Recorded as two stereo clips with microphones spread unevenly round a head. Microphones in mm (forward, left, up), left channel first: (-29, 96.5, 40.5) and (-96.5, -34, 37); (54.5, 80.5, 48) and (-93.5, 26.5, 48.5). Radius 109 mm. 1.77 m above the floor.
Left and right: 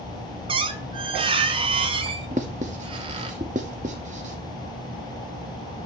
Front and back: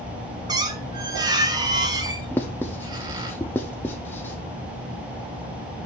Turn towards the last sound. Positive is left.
turn(degrees=-60)